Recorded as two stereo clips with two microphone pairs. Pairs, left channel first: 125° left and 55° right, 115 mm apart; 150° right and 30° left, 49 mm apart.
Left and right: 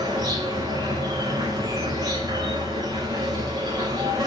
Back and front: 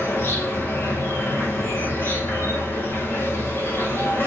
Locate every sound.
0.0 s an insect: 110° right, 4 m